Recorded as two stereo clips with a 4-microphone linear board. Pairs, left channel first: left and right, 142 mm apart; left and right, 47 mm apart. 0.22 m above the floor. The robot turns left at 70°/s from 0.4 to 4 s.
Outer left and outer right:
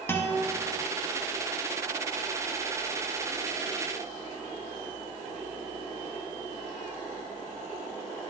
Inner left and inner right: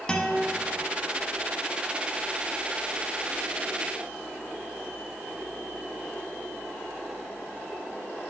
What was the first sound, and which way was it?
A guitar, 15° left (ahead or behind).